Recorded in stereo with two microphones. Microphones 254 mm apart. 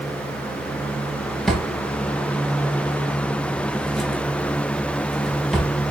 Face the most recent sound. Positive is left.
turn(degrees=0)  # may be behind; listen again after turning